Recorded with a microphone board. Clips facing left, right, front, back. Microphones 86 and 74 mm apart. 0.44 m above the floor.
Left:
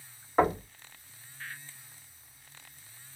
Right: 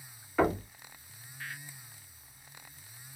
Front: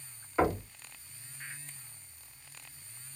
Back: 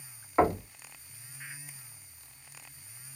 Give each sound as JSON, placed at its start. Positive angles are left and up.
{"t": 0.4, "sound": "knocking", "azimuth_deg": 130, "distance_m": 1.6}